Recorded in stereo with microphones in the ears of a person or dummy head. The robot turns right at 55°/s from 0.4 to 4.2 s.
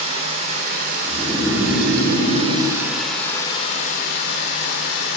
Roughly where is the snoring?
Behind.